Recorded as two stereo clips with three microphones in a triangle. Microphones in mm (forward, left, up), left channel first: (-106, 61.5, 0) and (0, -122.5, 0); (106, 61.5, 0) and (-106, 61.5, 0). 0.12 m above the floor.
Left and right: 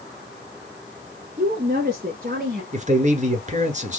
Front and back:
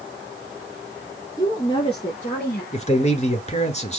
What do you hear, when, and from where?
1.4 s a woman speaking: 65° right, 1.5 m; by 2.6 s 30° right, 1.9 m
2.7 s a man speaking: 35° right, 2 m